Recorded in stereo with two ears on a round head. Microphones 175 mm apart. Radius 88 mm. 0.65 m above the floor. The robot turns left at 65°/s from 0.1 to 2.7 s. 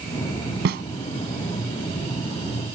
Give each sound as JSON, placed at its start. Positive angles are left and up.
{"t": 0.7, "sound": "a snare drum", "side_deg": -60}